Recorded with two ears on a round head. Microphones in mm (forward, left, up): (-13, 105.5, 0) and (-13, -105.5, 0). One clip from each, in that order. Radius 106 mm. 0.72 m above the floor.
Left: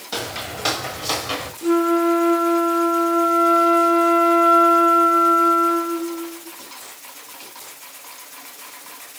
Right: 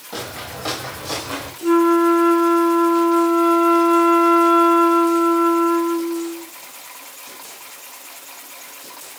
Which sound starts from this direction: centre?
A flute, at 1.6 s.